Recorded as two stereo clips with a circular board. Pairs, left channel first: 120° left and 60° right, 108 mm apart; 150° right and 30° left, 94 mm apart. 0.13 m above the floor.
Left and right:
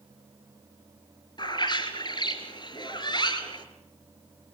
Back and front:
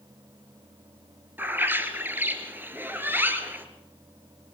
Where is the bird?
90° left, 2.5 m.